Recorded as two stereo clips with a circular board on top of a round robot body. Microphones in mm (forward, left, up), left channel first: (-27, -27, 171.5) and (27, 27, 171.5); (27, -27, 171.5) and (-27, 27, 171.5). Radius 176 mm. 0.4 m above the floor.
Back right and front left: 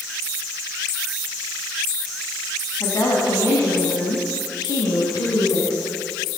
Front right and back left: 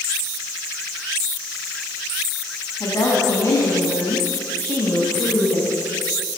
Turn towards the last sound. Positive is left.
turn(degrees=-125)